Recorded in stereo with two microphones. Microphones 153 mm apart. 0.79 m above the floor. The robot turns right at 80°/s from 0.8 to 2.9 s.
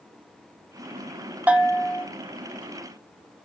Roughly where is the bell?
Ahead.